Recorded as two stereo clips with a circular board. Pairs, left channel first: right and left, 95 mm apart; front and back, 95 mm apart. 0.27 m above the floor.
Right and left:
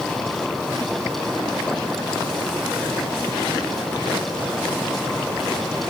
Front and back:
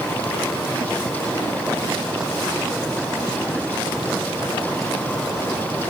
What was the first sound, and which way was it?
Only background noise.